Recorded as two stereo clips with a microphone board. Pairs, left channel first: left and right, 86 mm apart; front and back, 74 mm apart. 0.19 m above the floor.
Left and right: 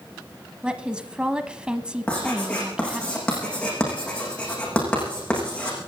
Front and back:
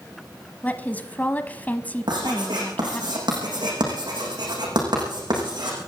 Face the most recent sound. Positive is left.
turn(degrees=170)